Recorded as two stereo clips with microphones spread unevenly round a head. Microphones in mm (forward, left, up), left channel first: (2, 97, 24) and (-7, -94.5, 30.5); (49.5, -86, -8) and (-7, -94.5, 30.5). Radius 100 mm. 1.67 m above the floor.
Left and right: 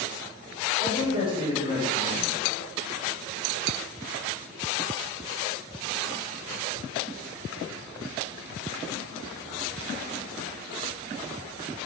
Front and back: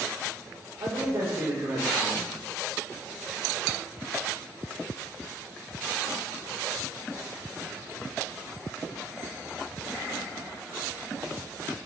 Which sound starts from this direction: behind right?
A man speaking, at 0.8 s.